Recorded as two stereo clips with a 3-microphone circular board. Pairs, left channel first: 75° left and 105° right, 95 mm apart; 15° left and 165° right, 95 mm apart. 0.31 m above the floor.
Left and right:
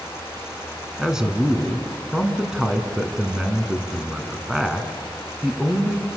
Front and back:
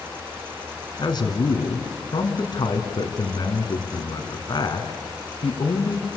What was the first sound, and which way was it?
A man speaking, 20° right.